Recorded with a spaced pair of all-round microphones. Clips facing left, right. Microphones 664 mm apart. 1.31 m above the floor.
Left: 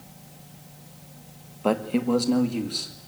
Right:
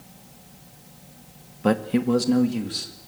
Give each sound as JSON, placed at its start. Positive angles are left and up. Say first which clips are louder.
{"t": 1.6, "sound": "a man speaking", "louder": "right 2 dB", "side_deg": -40, "distance_m": 1.3}